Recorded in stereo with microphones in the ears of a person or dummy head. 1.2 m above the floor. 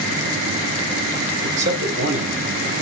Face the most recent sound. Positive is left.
turn(degrees=-70)  # may be behind; listen again after turning